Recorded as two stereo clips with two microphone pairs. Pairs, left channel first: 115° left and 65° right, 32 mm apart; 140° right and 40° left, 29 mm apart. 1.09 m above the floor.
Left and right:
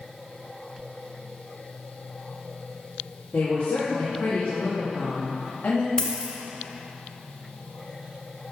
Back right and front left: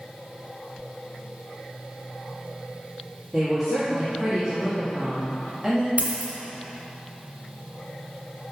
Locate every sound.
3.3 s a woman speaking: 125° left, 2.0 m
6.0 s a dropped coin: 55° left, 1.8 m